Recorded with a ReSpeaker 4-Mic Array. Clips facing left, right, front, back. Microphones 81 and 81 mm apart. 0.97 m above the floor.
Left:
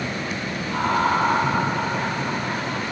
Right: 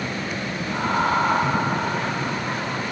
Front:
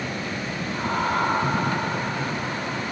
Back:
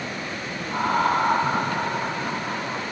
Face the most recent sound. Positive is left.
turn(degrees=-155)